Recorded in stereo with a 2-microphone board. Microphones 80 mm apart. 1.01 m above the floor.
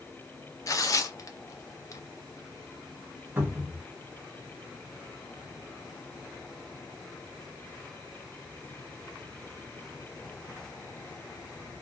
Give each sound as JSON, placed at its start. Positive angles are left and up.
{"t": 0.7, "sound": "tearing paper", "side_deg": 45, "distance_m": 0.5}
{"t": 3.4, "sound": "a cupboard door", "side_deg": -25, "distance_m": 1.1}